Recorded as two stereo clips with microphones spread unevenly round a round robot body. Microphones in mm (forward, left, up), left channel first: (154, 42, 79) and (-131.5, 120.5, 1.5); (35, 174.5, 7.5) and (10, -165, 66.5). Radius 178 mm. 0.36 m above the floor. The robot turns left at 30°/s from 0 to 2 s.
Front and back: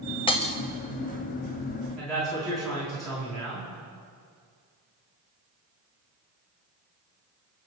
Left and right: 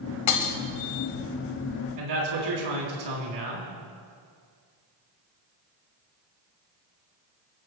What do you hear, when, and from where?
0.3 s breaking glass: 65° left, 1.3 m; by 0.6 s 55° left, 1.3 m
2.0 s a man speaking: 105° right, 4 m; by 3.7 s 110° right, 4 m